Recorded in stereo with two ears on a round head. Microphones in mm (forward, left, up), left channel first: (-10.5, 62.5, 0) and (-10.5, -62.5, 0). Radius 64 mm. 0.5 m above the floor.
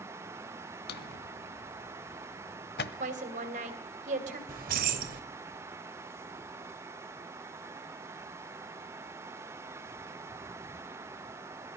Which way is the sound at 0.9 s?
85° left.